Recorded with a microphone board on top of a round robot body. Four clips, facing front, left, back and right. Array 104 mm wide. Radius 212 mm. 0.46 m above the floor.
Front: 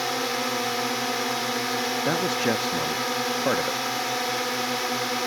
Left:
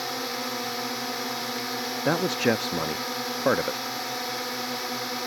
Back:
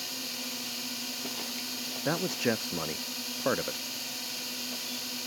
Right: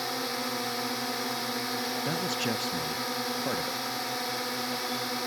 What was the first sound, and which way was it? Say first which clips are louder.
A drone: left 1 dB, front 16 dB; 5° left.